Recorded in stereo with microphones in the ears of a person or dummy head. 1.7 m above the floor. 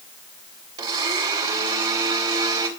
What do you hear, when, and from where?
0.8 s a blender: 30° right (ahead or behind), 3.5 m